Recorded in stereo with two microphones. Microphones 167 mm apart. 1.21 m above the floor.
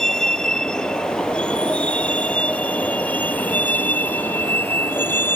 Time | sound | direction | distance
0.0 | a vehicle | 5° left (ahead or behind) | ?